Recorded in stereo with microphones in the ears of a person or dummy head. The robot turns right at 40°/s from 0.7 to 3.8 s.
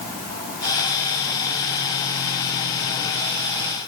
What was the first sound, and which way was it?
Only background noise.